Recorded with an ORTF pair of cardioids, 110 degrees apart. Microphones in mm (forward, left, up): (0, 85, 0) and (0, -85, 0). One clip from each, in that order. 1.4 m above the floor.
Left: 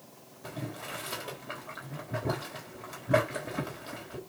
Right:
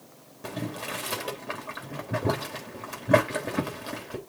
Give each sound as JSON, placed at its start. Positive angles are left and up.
{"t": 0.4, "sound": "boiling", "azimuth_deg": -40, "distance_m": 3.5}